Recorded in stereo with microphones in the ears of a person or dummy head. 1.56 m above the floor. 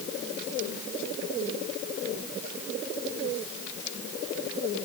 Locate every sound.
Only background noise.